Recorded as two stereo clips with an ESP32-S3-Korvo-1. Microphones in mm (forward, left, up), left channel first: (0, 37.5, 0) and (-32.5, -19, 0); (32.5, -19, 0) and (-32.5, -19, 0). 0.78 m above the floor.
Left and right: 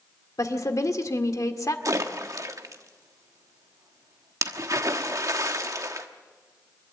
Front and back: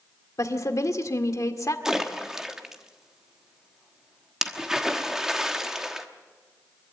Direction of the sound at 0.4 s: 30° left.